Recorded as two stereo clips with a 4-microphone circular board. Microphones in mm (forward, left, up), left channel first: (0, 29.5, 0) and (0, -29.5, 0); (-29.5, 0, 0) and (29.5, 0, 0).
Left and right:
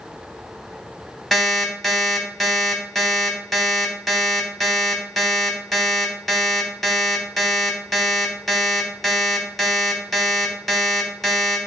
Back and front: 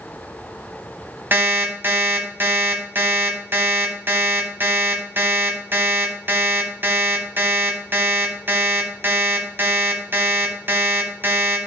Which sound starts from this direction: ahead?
An alarm clock, at 1.3 s.